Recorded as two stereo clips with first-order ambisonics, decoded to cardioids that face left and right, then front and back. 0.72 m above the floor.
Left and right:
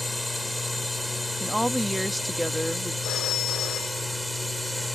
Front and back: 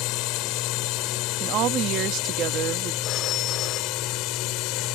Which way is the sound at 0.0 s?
Straight ahead.